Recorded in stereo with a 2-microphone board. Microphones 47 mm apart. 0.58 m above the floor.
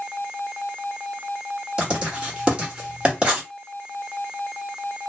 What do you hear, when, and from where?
1.8 s writing: 25° right (ahead or behind), 1.8 m